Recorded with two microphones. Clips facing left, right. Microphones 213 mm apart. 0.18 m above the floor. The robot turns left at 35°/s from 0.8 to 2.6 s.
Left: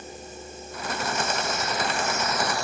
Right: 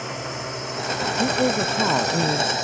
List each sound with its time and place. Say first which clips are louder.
0.0 s a drone: right 8 dB; 80° right; by 2.6 s 20° right (ahead or behind)
1.2 s a woman speaking: right 9 dB; 60° right; by 2.5 s 105° right